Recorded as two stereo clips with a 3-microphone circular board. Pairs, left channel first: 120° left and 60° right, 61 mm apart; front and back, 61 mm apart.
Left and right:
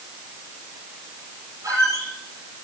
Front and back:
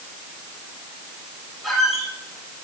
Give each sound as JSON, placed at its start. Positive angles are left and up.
{"t": 1.6, "sound": "a squeak", "azimuth_deg": -95, "distance_m": 8.0}